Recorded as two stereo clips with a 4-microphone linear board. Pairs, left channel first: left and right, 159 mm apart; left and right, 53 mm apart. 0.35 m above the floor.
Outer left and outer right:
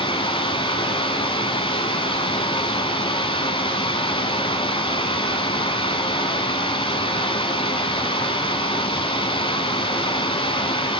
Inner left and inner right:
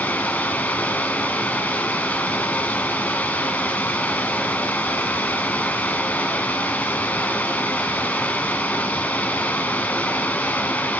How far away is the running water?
About 1.1 m.